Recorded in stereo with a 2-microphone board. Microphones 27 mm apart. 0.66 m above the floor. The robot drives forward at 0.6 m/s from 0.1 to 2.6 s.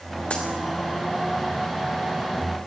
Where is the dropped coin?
45° left (ahead or behind), 3 m.